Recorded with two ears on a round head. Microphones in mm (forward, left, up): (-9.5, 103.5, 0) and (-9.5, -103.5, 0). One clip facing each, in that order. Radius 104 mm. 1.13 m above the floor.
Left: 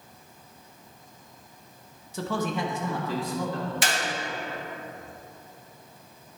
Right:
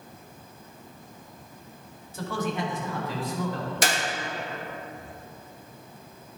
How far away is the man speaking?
About 0.9 m.